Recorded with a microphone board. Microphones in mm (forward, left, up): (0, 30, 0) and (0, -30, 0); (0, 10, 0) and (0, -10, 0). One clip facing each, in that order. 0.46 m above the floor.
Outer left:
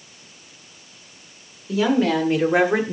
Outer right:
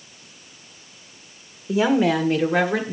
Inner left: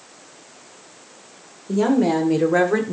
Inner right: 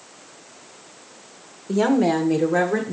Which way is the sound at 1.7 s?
20° right (ahead or behind).